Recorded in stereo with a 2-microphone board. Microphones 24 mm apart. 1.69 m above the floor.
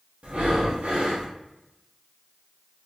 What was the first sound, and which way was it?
Breathing, 65° right (ahead or behind).